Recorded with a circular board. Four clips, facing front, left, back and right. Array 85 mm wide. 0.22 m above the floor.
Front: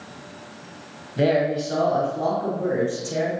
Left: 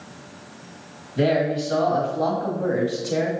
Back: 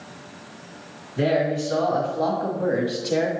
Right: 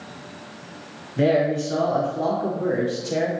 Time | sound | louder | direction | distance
1.2 | a man speaking | right 1 dB, front 1 dB | 35° left | 1.6 m